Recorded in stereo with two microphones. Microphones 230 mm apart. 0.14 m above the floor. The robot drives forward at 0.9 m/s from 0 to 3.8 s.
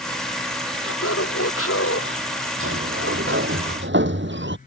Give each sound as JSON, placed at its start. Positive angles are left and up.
{"t": 0.8, "sound": "laughter", "side_deg": 75}
{"t": 2.6, "sound": "a sliding door", "side_deg": -65}